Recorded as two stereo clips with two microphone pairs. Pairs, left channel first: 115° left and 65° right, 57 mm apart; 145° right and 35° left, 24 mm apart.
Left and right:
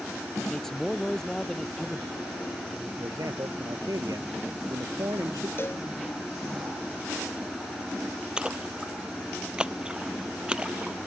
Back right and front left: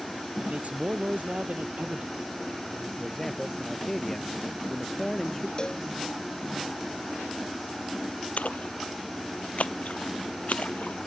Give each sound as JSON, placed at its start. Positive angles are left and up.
{"t": 0.4, "sound": "a man speaking", "azimuth_deg": 35}
{"t": 3.0, "sound": "a man speaking", "azimuth_deg": -60}
{"t": 5.6, "sound": "a cowbell", "azimuth_deg": 165}
{"t": 8.4, "sound": "a splash", "azimuth_deg": -135}